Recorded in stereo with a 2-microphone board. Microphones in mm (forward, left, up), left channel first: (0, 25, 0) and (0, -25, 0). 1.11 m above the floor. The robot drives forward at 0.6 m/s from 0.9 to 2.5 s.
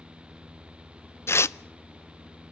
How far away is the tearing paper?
About 0.6 m.